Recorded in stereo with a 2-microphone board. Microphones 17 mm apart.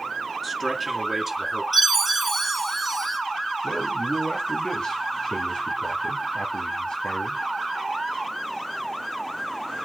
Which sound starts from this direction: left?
A man speaking, at 3.6 s.